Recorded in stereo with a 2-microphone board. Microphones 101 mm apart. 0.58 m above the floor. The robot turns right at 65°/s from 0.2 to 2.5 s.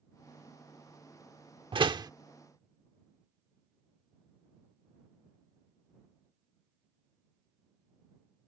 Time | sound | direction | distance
1.7 | a door slam | 60° right (ahead or behind) | ?